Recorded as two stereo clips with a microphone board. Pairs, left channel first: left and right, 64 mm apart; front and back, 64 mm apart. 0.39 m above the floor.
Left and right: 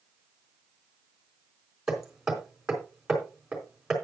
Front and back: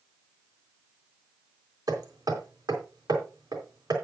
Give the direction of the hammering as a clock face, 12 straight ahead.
6 o'clock.